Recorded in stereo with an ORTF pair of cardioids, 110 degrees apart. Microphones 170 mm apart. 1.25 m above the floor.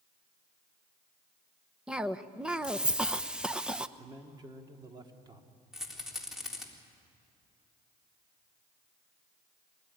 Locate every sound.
1.9 s a cough: 5° right, 1.0 m
4.0 s a man speaking: 25° right, 2.5 m
5.7 s a rattle: 5° right, 3.5 m